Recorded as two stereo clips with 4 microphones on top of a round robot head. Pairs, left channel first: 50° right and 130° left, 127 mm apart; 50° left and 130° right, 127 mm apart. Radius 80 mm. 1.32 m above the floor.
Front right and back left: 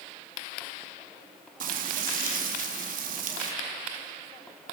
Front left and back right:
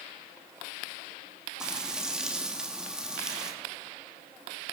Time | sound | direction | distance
1.6 | frying | 145° left | 2.5 m